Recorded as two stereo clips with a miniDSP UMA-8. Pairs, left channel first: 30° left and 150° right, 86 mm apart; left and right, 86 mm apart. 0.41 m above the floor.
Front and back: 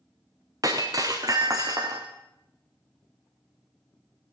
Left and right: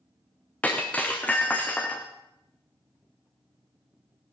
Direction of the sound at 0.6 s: 165° left.